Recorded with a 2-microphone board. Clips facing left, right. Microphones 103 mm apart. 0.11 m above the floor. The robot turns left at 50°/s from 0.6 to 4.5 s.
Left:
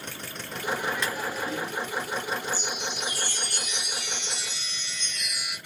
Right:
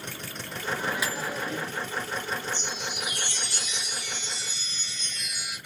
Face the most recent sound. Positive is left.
turn(degrees=75)